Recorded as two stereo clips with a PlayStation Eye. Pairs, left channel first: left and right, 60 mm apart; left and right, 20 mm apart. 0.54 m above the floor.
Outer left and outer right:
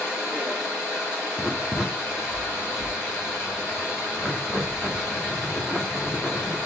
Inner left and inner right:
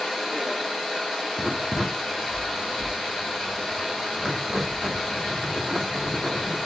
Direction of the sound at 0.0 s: 15° right (ahead or behind).